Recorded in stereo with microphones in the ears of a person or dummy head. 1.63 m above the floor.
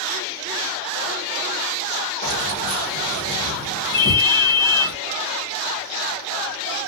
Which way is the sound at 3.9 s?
55° left (ahead or behind).